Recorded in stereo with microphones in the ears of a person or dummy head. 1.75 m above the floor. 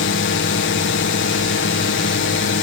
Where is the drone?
55° left (ahead or behind).